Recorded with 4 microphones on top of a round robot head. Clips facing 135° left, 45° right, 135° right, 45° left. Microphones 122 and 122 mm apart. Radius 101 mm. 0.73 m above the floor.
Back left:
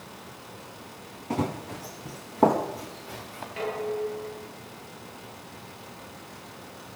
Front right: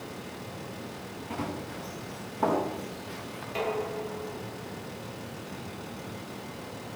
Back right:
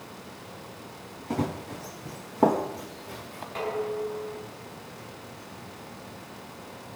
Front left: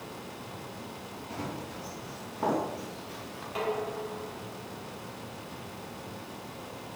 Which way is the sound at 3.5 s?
35° right.